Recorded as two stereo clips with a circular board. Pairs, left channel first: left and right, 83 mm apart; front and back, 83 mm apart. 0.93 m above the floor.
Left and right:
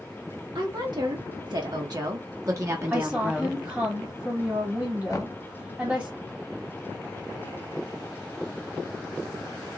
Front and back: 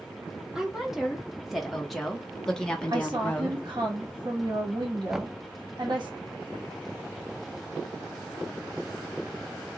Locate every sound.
0.6 s a woman speaking: 95° right, 1.8 m; by 3.6 s 25° right, 0.8 m
2.9 s a woman speaking: 155° right, 1.6 m
5.1 s knocking: 95° left, 0.5 m